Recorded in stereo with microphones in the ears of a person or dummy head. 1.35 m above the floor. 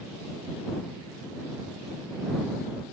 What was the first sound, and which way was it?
Only background noise.